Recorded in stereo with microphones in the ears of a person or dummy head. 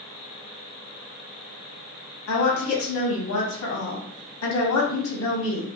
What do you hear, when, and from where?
2.3 s a woman speaking: 80° left, 2 m